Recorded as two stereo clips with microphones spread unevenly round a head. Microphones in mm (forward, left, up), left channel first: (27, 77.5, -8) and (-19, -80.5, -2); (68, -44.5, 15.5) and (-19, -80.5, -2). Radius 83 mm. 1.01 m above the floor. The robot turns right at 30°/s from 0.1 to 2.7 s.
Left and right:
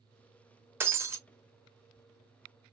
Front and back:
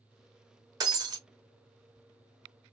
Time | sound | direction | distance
0.8 | breaking glass | 160° right | 0.7 m